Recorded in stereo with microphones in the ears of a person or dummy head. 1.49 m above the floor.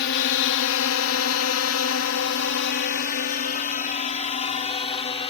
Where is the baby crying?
No baby crying in this recording.